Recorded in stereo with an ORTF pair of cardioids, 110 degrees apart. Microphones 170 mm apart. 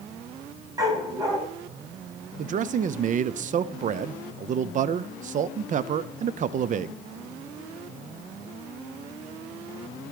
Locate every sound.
0.8 s a dog barking: 20° right, 4 m
2.4 s a man speaking: 45° right, 0.6 m